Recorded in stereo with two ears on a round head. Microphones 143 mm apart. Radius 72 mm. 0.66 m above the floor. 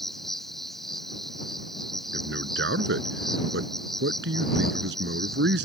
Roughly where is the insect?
Centre.